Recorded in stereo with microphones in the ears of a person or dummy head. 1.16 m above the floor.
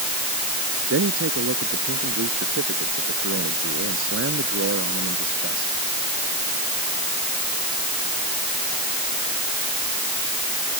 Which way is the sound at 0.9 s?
80° right.